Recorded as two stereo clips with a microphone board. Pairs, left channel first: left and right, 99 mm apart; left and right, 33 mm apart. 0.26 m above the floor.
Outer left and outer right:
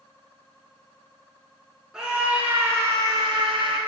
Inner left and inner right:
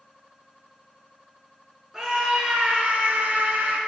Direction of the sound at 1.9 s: 10° right (ahead or behind).